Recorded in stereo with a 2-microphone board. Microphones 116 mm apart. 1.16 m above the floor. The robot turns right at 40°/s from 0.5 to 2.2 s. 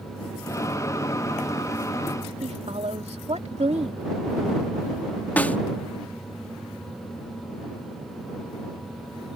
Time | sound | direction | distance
2.4 | a woman speaking | 65° right (ahead or behind) | ?
5.4 | a snare drum | 15° left (ahead or behind) | ?